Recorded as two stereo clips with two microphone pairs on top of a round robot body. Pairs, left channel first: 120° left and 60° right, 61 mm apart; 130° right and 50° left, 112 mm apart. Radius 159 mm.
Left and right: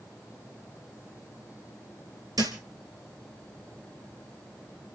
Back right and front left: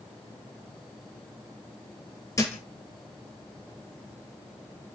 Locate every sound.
2.4 s a thud: 65° right, 3 m